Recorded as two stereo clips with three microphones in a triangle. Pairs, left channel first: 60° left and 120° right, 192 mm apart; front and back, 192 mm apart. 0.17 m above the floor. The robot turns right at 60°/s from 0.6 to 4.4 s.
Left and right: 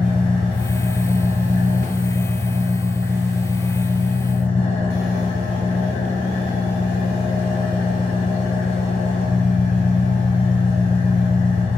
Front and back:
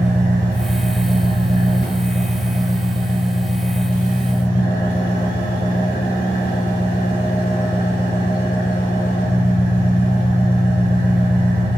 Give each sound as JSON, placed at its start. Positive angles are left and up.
{"t": 0.0, "sound": "an engine running", "azimuth_deg": 145, "distance_m": 1.9}